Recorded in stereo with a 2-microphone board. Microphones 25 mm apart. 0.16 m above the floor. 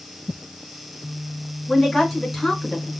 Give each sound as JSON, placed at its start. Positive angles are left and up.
{"t": 1.7, "sound": "a woman speaking", "side_deg": 0, "distance_m": 1.9}